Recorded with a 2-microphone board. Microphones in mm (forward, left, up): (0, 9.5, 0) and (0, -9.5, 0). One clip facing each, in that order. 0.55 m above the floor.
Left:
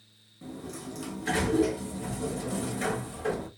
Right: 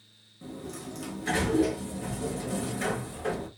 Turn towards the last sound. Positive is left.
turn(degrees=0)  # may be behind; listen again after turning